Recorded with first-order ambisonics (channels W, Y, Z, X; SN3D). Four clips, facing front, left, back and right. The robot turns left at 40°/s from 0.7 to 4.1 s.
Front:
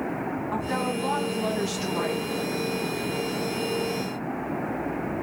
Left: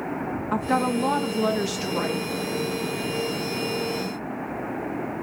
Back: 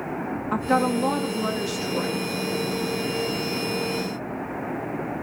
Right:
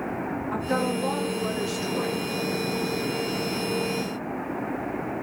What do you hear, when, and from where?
0.5 s a woman speaking: 135° left, 0.6 m; by 2.2 s 75° left, 0.6 m